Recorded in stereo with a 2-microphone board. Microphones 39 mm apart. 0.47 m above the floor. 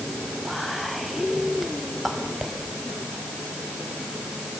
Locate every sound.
0.4 s whispering: 5° right (ahead or behind), 2.5 m